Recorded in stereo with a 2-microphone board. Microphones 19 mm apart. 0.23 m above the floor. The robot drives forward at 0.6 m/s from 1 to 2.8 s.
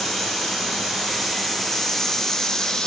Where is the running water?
20° left (ahead or behind), 1.8 m; by 2.9 s 40° left (ahead or behind), 0.9 m.